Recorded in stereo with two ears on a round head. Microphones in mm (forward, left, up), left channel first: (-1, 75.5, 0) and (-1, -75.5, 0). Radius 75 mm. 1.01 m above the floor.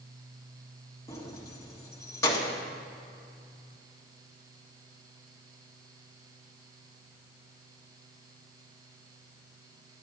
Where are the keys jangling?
15° left (ahead or behind), 1.2 m.